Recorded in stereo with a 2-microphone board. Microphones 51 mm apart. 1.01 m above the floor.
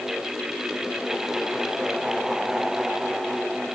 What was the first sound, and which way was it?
Only background noise.